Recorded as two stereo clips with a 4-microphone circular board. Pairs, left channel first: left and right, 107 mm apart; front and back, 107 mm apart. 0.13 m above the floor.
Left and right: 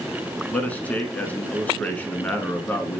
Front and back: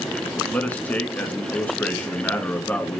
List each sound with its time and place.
0.5 s a man speaking: 45° left, 1.1 m